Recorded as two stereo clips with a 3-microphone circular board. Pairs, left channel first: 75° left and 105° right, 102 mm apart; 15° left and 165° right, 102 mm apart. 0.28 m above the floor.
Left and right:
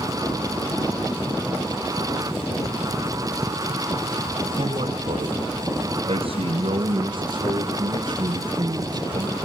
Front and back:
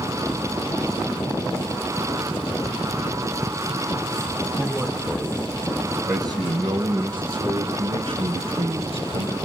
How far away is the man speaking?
About 2.5 m.